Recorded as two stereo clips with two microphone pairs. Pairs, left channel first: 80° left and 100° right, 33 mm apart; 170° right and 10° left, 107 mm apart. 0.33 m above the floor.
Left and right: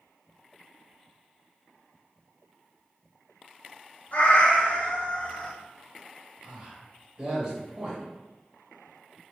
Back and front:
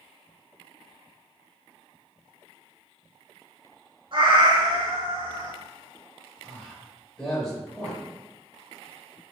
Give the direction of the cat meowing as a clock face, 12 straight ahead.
11 o'clock.